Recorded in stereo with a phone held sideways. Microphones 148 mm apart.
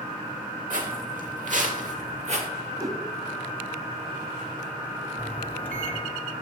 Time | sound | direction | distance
0.7 | footsteps | 65° right (ahead or behind) | 3 m
2.8 | a whoosh | 20° right (ahead or behind) | 1.5 m
5.2 | a microwave | 10° left (ahead or behind) | 1.7 m